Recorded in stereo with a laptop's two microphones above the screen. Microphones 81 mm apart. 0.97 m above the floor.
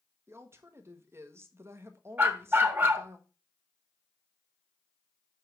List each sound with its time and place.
0.3 s a woman speaking: 30° right (ahead or behind), 1.3 m
2.2 s a dog barking: 25° right (ahead or behind), 1.0 m